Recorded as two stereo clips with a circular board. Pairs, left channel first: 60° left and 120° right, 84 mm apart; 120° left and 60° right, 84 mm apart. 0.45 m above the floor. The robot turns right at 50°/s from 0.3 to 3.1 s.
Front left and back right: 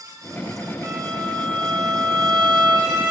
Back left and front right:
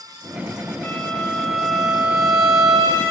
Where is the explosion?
No explosion in this recording.